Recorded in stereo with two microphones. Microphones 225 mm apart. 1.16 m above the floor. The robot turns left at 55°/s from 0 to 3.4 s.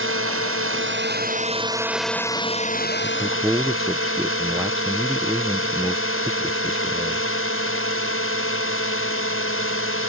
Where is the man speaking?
15° right (ahead or behind); by 7.3 s centre (ahead or behind).